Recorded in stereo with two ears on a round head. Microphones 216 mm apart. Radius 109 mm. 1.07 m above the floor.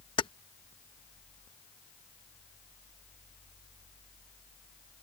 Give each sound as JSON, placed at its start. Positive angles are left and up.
{"t": 0.2, "sound": "keys jangling", "side_deg": 20}